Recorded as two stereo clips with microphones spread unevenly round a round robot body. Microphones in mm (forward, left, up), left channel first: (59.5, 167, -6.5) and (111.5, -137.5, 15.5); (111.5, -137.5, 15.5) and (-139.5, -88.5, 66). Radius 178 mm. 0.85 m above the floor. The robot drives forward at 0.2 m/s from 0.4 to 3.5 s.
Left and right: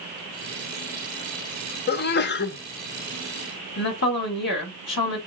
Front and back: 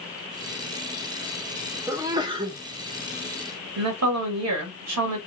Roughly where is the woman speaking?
Behind left.